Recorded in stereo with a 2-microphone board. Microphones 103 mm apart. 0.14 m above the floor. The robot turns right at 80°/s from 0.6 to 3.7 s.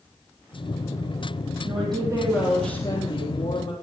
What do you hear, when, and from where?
1.6 s a woman speaking: 70° right, 3.5 m; by 3.7 s 95° left, 3.5 m